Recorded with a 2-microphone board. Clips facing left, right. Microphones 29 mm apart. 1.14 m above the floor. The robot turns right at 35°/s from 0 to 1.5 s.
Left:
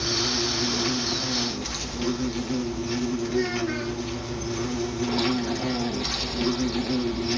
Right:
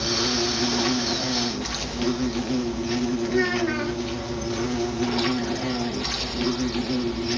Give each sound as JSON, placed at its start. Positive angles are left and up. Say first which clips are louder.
{"t": 0.0, "sound": "an insect", "louder": "right 2 dB", "azimuth_deg": -85, "distance_m": 0.8}
{"t": 3.3, "sound": "a child speaking", "louder": "right 5 dB", "side_deg": -40, "distance_m": 0.5}